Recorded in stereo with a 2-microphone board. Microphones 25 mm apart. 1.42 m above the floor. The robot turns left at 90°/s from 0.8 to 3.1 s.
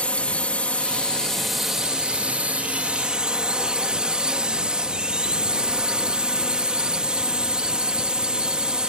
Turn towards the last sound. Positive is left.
turn(degrees=-140)